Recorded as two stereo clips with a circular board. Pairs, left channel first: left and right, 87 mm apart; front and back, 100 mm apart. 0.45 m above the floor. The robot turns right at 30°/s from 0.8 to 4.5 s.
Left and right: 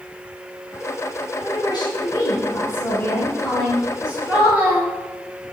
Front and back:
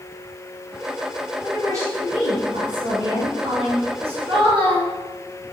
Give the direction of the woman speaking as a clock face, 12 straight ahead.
8 o'clock.